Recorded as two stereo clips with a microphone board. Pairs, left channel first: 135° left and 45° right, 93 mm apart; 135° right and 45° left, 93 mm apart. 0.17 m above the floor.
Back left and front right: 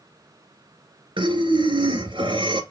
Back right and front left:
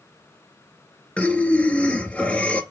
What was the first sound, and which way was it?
Breathing, 60° right.